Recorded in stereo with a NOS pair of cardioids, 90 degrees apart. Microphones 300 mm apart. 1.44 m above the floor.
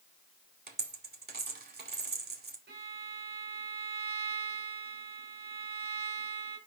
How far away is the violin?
About 2.5 m.